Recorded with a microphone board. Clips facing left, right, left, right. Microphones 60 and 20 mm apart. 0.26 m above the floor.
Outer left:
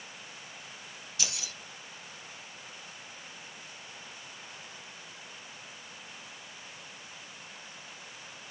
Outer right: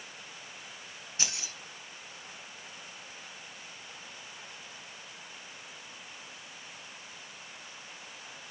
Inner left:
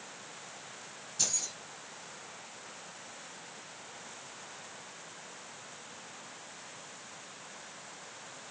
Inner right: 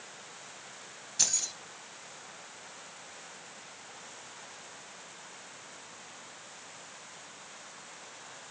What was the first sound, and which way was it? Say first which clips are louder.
Keys jangling: outer right 1 dB, inner right 3 dB; 30° right (ahead or behind).